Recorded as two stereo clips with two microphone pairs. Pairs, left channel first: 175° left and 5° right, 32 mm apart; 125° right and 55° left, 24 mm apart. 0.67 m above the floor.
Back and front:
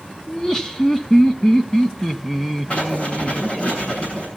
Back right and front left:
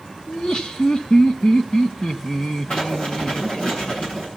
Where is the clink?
I don't hear a clink.